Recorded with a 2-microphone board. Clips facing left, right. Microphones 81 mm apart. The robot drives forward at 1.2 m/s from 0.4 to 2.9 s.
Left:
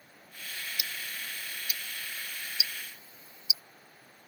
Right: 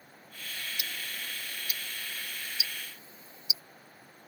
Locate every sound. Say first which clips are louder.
0.8 s ticking: even; 40° right (ahead or behind); by 3.6 s 30° right (ahead or behind)